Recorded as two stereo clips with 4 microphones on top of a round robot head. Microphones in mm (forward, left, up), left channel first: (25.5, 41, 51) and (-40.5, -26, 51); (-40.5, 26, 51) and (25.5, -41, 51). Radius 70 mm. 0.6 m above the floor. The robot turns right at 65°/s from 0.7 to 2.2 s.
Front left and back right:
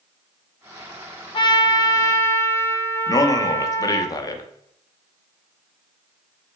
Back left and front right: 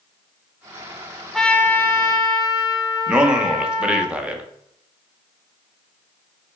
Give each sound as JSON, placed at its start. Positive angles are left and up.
{"t": 1.3, "sound": "a trumpet", "azimuth_deg": 50, "distance_m": 0.7}
{"t": 3.1, "sound": "a man speaking", "azimuth_deg": 30, "distance_m": 0.7}